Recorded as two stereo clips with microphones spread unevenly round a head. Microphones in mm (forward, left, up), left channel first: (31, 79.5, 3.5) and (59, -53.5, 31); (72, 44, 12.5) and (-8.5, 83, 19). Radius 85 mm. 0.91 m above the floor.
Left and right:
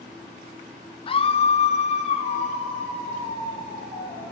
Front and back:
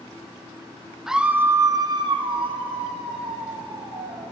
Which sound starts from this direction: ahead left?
A scream, at 1.1 s.